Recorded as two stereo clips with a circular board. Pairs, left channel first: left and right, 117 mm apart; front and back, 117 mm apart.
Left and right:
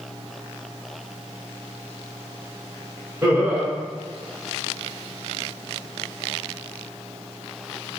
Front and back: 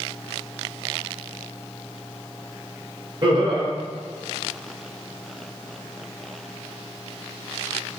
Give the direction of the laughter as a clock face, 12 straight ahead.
5 o'clock.